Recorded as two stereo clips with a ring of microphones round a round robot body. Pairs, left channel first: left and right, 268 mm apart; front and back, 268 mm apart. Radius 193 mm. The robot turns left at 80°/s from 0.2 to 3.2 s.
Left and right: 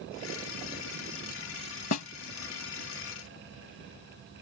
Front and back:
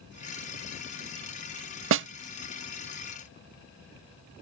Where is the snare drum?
140° left; by 2.1 s 125° left.